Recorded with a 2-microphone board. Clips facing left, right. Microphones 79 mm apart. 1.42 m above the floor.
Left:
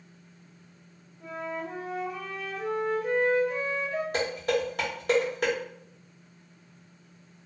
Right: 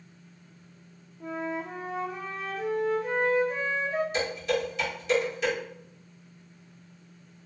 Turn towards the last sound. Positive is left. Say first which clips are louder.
# left 1 dB
turn(degrees=55)  # may be behind; listen again after turning